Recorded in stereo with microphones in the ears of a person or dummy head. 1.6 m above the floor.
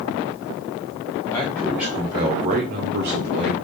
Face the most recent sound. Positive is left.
turn(degrees=-75)  # may be behind; listen again after turning